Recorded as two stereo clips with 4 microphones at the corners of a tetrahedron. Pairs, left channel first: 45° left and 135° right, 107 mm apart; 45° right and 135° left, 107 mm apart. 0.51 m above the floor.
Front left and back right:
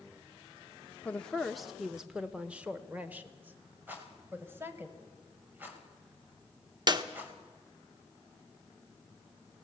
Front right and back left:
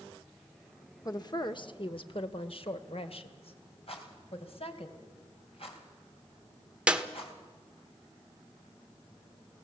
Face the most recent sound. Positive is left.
turn(degrees=-150)